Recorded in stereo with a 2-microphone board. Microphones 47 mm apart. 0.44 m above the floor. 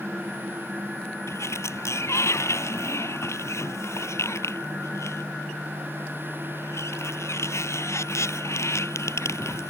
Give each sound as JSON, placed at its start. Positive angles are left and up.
{"t": 1.3, "sound": "a sliding door", "side_deg": 75}